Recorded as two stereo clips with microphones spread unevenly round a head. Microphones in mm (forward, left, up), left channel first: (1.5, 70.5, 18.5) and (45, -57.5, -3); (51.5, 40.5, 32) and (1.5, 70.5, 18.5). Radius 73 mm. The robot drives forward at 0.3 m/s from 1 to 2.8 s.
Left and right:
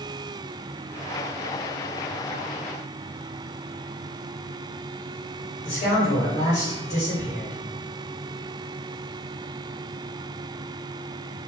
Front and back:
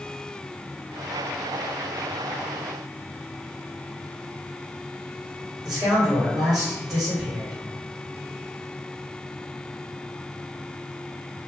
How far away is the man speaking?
About 1.8 m.